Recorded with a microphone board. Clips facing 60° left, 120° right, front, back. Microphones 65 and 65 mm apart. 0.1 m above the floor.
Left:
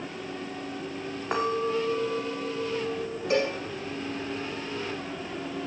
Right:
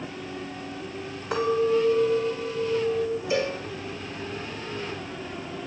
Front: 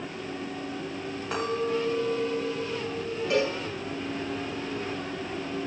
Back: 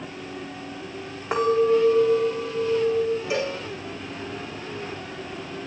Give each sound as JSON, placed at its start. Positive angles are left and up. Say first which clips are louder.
{"t": 1.3, "sound": "a clink", "louder": "right 5 dB, back 9 dB", "azimuth_deg": 115, "distance_m": 3.5}
{"t": 3.3, "sound": "a cowbell", "louder": "left 3 dB, front 1 dB", "azimuth_deg": 95, "distance_m": 5.0}